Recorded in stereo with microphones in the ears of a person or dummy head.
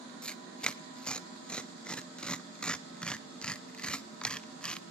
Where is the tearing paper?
5° left (ahead or behind), 0.6 m.